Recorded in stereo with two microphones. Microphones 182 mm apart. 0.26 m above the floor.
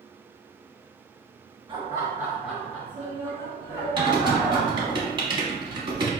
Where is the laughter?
25° right (ahead or behind), 1.2 m; by 5.0 s 30° left (ahead or behind), 2.5 m.